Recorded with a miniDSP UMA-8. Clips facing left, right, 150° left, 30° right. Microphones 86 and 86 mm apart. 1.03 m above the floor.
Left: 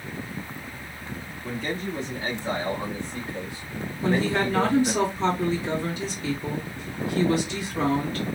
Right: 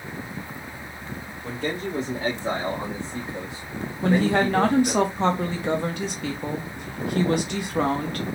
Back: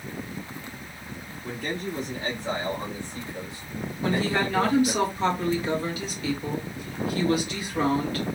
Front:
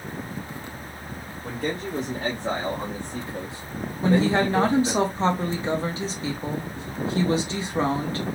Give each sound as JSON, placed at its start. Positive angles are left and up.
{"t": 1.4, "sound": "a man speaking", "azimuth_deg": -65, "distance_m": 1.8}
{"t": 4.0, "sound": "a woman speaking", "azimuth_deg": -85, "distance_m": 1.2}